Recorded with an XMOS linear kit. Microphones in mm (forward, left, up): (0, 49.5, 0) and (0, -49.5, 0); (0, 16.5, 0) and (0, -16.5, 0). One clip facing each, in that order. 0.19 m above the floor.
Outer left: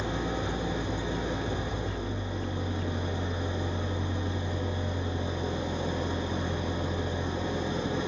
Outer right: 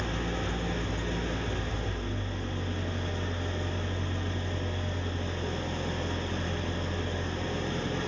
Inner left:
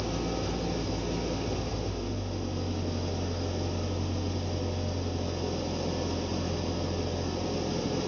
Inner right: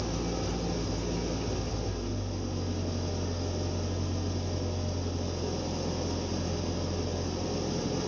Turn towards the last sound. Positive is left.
turn(degrees=15)  # may be behind; listen again after turning